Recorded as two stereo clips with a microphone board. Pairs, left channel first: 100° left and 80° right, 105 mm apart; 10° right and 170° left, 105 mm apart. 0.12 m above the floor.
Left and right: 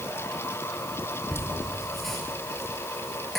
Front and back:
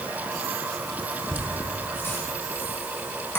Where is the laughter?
15° left, 1.2 m.